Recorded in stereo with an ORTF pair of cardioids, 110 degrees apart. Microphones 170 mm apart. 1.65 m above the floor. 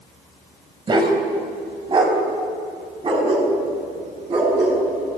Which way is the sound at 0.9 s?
30° right.